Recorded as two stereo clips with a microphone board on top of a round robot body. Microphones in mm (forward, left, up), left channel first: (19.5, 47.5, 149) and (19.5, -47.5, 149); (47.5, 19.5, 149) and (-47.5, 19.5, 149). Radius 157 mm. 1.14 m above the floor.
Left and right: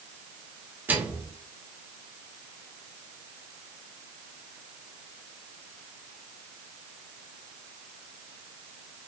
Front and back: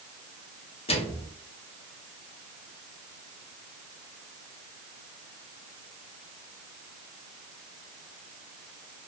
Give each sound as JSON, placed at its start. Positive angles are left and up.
{"t": 0.9, "sound": "a microwave", "azimuth_deg": -20, "distance_m": 1.5}